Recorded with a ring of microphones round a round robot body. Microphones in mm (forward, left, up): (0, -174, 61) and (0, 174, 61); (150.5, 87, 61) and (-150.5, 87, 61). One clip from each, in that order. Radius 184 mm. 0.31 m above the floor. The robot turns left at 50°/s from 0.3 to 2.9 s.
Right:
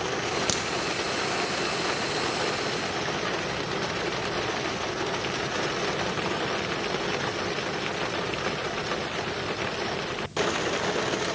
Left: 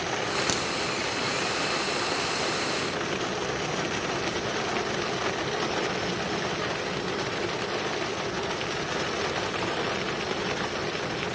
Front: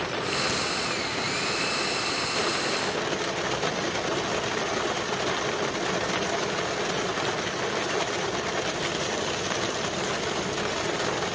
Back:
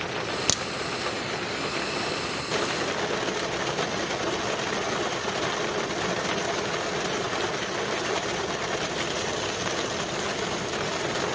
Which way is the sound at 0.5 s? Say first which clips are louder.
Even, back 1 dB; 175° right.